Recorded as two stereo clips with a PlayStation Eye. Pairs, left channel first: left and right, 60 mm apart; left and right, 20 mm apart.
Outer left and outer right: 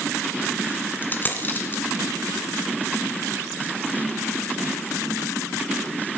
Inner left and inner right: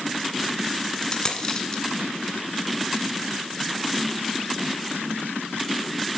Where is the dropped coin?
30° left (ahead or behind), 1.8 m.